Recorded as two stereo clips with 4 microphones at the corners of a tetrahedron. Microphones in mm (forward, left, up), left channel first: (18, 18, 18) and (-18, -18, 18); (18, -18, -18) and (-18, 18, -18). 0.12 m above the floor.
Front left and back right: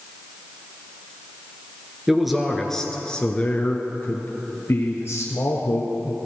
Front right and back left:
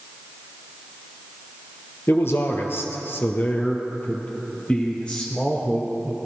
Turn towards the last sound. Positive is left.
turn(degrees=30)